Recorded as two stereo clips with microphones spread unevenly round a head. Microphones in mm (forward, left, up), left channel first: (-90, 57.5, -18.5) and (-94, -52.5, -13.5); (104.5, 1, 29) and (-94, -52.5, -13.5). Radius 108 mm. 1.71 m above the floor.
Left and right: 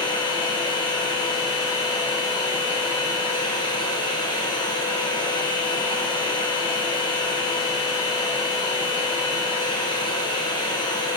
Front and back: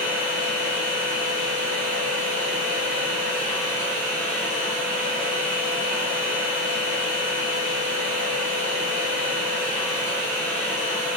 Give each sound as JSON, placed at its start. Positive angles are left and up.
{"t": 0.0, "sound": "a machine running", "azimuth_deg": 135, "distance_m": 1.0}